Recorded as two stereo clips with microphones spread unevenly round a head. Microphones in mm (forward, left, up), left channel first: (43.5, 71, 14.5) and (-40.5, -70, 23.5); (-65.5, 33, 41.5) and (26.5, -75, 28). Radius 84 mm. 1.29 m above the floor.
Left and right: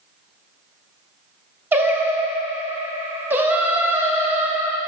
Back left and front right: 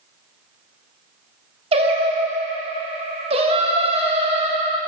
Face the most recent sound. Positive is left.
turn(degrees=-60)